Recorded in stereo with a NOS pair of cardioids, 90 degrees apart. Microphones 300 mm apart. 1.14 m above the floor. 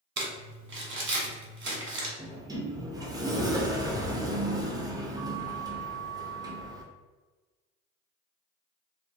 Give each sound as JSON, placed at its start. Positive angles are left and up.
{"t": 0.2, "sound": "crumpling", "azimuth_deg": -40, "distance_m": 1.0}
{"t": 2.2, "sound": "a sliding door", "azimuth_deg": -15, "distance_m": 0.6}